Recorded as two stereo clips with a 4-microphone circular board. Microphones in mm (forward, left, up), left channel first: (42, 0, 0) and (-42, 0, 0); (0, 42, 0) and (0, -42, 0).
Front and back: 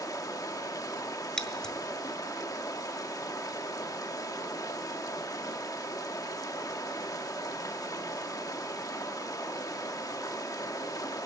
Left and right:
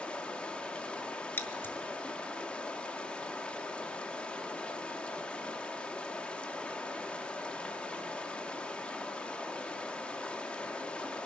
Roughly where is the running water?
Ahead.